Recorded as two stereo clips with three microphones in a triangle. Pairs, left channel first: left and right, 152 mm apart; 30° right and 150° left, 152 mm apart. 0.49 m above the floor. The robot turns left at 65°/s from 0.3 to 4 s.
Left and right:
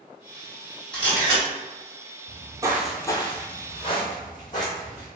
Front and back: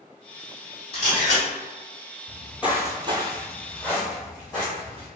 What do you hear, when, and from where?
0.9 s a camera shutter: 170° left, 1.8 m; by 1.4 s 135° left, 1.8 m
2.3 s footsteps: 85° right, 0.6 m; by 5.1 s 25° left, 1.4 m